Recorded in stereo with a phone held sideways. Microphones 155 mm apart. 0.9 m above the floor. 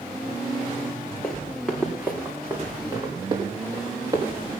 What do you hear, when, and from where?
1.2 s running footsteps: 5° left (ahead or behind), 3.5 m; by 4.2 s 35° right (ahead or behind), 6 m